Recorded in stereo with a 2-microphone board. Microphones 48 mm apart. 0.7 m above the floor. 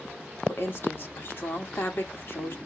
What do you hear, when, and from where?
0.5 s a woman speaking: 55° left (ahead or behind), 1.6 m